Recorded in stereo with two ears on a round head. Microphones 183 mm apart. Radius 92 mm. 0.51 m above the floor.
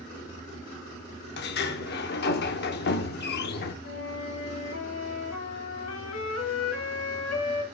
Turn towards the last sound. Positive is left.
turn(degrees=70)  # may be behind; listen again after turning